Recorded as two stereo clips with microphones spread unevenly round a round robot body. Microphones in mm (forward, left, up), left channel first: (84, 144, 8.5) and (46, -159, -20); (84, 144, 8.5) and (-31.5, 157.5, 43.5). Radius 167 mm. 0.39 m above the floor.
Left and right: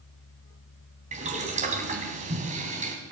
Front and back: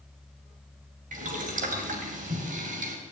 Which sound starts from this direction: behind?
Boiling, at 1.1 s.